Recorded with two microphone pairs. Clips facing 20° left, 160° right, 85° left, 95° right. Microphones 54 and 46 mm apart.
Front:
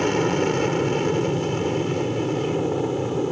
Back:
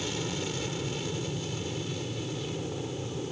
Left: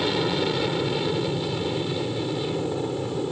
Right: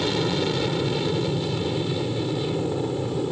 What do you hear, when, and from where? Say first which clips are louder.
0.0 s an aircraft: front 13 dB, even; 5° left; by 3.3 s straight ahead